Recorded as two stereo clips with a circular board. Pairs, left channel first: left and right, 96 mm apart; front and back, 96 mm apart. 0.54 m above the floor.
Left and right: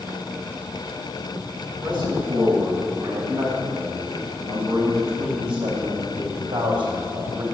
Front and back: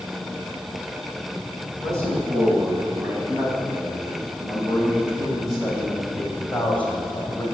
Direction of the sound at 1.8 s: 120° right.